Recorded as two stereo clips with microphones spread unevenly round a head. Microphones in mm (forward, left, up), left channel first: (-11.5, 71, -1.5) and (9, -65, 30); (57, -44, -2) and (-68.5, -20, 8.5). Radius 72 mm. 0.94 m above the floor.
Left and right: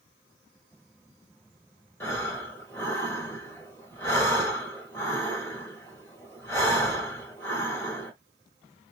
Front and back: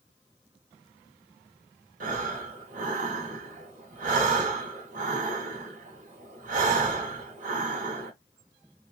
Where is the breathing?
Straight behind, 1.3 m.